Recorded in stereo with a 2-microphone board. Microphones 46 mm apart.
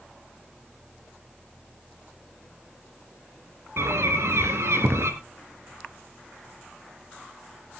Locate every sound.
3.8 s a bird: 75° right (ahead or behind), 2.5 m